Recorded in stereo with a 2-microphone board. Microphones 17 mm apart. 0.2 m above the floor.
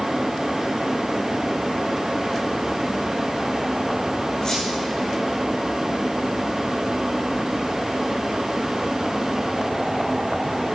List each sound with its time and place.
4.4 s a squeak: 55° left (ahead or behind), 5.5 m